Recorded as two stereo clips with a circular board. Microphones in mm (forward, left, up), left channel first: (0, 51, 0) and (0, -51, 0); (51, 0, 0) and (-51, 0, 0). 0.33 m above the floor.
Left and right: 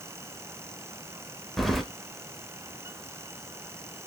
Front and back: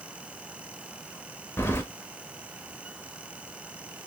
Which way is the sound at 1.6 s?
Straight ahead.